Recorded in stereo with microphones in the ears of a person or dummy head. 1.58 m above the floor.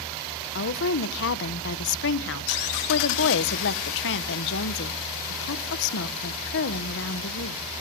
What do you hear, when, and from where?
0.6 s a woman speaking: 70° left (ahead or behind), 1.3 m